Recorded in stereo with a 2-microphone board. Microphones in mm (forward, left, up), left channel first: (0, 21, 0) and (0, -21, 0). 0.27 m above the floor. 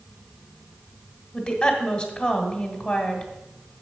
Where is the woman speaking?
25° left (ahead or behind), 1.8 m.